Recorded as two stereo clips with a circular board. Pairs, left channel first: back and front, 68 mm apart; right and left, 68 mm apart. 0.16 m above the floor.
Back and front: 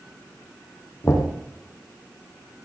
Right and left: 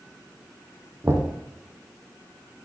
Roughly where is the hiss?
I don't hear a hiss.